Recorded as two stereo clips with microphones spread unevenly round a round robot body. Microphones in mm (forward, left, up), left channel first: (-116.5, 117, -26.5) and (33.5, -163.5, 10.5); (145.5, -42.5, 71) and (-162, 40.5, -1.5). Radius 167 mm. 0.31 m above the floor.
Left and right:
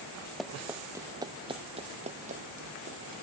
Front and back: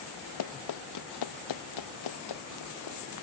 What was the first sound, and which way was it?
Running footsteps, 25° left.